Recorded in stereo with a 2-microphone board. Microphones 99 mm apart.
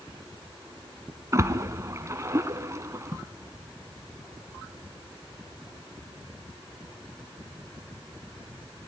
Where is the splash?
30° right (ahead or behind), 1.3 m.